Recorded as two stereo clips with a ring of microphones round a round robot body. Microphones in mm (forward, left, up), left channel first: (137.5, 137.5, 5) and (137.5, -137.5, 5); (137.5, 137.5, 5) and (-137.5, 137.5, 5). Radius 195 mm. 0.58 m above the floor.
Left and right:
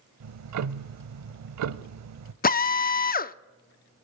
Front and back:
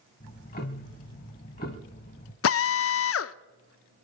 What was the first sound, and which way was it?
Ticking, 70° right.